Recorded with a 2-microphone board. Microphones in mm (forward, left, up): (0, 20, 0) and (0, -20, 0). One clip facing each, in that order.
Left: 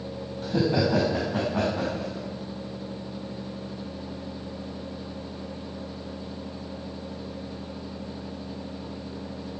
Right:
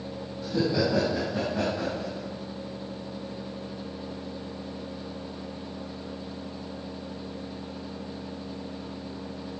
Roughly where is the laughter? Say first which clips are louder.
Left 2 dB; left.